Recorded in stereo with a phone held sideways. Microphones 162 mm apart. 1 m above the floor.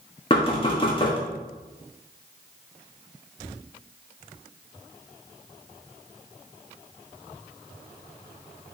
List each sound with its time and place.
0.3 s knocking: 30° left (ahead or behind), 1.4 m